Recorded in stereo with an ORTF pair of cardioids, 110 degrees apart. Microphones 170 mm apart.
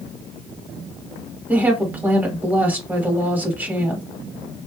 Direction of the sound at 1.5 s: 10° right.